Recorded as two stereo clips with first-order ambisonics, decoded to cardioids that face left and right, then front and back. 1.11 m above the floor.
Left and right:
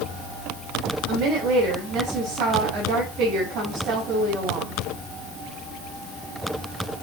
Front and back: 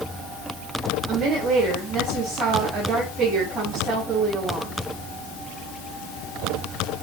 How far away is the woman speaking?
About 6 m.